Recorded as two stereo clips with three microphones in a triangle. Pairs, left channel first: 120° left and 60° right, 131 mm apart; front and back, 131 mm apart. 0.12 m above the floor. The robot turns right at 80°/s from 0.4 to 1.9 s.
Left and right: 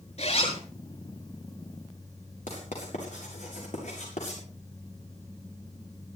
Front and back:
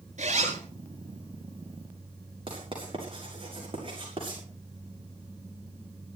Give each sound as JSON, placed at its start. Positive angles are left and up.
{"t": 0.2, "sound": "a zipper", "azimuth_deg": 155, "distance_m": 7.0}
{"t": 2.5, "sound": "writing", "azimuth_deg": 135, "distance_m": 7.5}